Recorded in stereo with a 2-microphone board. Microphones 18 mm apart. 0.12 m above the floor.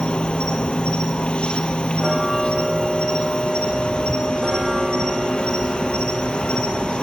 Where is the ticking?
25° right (ahead or behind), 8 m.